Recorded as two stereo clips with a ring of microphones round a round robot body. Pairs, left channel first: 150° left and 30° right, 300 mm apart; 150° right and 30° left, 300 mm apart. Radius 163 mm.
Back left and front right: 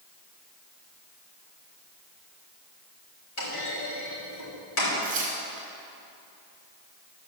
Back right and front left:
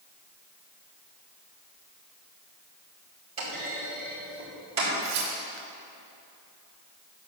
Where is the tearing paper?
35° left, 2.5 m.